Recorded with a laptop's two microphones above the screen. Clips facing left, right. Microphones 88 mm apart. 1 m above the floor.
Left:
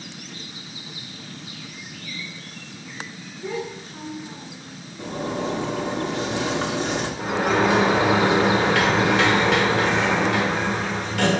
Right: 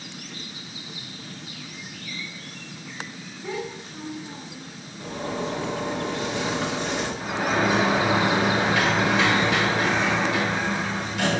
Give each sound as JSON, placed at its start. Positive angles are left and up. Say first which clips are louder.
{"t": 3.4, "sound": "a child speaking", "louder": "left 2 dB", "side_deg": 45, "distance_m": 2.0}
{"t": 5.0, "sound": "a zipper", "louder": "left 3 dB", "side_deg": 75, "distance_m": 1.9}
{"t": 7.2, "sound": "a sliding door", "louder": "left 4 dB", "side_deg": 75, "distance_m": 1.3}